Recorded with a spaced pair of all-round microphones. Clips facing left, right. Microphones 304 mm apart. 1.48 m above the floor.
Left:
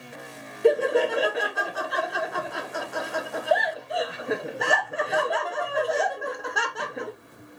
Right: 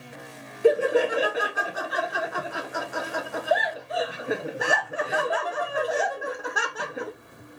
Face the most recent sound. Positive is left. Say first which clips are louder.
# even
turn(degrees=0)  # may be behind; listen again after turning